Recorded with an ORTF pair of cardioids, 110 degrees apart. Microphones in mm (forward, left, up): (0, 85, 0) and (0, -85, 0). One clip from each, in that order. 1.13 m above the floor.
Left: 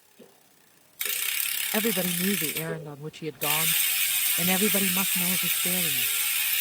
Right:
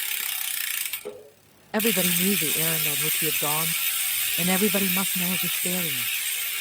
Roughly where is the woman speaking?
Ahead.